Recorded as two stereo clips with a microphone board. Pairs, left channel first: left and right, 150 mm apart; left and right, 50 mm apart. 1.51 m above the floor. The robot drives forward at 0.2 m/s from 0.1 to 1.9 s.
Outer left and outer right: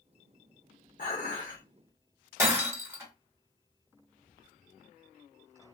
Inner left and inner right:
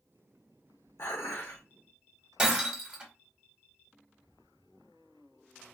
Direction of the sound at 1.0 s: 65° left (ahead or behind).